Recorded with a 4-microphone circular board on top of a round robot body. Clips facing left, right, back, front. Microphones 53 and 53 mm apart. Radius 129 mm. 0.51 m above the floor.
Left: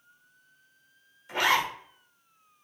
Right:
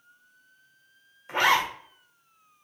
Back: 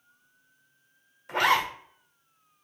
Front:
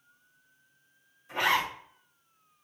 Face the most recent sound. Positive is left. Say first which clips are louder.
# right 3 dB, back 3 dB
turn(degrees=-145)